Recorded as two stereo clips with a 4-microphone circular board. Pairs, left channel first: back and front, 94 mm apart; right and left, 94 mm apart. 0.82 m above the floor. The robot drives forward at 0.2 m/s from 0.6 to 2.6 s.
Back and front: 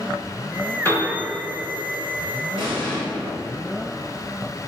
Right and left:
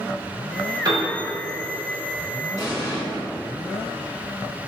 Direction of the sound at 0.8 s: 120° left.